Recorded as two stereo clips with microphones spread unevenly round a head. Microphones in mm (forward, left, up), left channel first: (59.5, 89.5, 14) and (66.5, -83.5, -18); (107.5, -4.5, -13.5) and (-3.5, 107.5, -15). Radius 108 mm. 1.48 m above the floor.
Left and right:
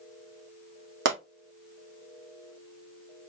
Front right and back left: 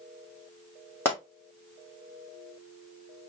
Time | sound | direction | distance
1.1 | a pop | 125° right | 1.7 m